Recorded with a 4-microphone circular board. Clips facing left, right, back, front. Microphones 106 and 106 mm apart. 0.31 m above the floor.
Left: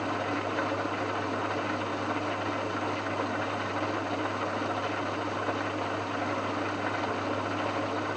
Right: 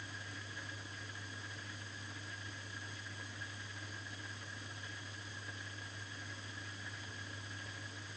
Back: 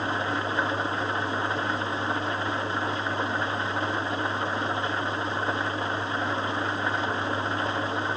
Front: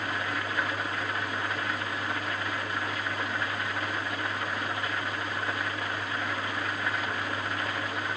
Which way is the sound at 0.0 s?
115° left.